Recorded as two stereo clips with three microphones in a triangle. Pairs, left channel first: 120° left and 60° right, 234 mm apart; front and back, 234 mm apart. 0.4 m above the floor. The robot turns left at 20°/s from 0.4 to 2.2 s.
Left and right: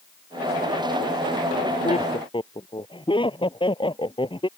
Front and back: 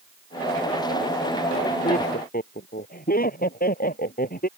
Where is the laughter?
60° left; by 4.5 s 50° left.